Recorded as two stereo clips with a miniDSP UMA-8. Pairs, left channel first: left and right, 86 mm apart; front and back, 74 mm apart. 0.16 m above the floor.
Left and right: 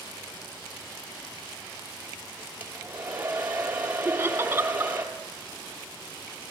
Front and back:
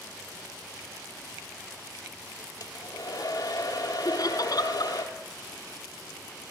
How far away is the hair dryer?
About 2.5 m.